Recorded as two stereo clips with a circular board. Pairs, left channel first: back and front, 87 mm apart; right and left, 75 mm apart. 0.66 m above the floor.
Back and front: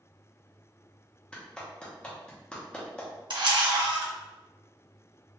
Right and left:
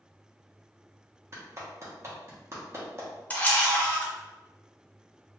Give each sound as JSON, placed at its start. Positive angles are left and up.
{"t": 1.3, "sound": "a clap", "azimuth_deg": 105, "distance_m": 1.0}
{"t": 3.3, "sound": "a camera shutter", "azimuth_deg": -25, "distance_m": 0.8}